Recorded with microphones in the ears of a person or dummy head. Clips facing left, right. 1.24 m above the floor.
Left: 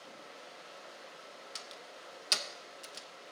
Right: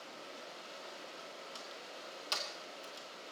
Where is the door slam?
25° left (ahead or behind), 0.8 m.